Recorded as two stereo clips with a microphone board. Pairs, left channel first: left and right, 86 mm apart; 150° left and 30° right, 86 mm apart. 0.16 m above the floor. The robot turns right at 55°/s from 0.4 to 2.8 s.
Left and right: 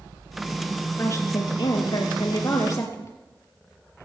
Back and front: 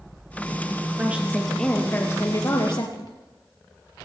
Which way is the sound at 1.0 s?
35° left.